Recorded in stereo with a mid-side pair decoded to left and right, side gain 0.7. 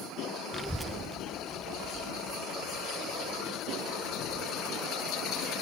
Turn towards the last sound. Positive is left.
turn(degrees=-50)